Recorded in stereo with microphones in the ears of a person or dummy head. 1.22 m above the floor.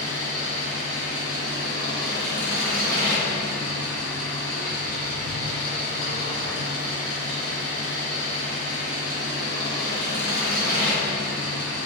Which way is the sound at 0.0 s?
65° left (ahead or behind).